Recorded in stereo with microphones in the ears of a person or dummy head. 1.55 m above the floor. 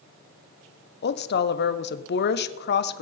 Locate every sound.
1.0 s a woman speaking: 70° left (ahead or behind), 0.7 m